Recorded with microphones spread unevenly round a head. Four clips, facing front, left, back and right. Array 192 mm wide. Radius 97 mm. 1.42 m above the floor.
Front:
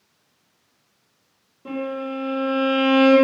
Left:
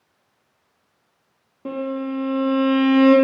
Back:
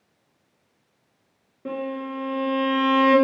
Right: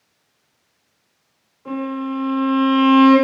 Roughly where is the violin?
Left.